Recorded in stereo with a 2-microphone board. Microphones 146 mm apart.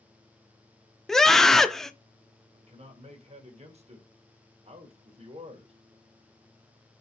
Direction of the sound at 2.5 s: 45° right (ahead or behind).